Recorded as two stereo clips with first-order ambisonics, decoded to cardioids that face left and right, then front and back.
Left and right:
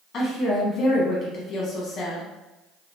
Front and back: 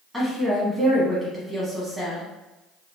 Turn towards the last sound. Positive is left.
turn(degrees=85)